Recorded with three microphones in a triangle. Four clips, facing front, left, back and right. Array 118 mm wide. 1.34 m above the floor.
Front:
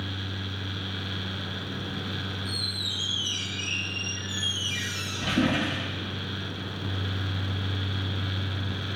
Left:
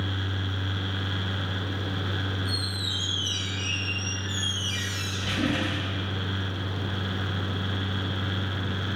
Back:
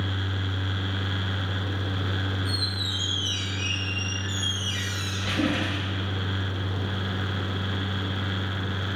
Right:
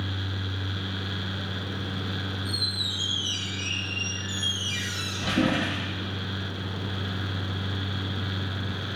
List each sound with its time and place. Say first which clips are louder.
2.5 s a squeak: left 1 dB, back 4 dB; 40° right, 7 m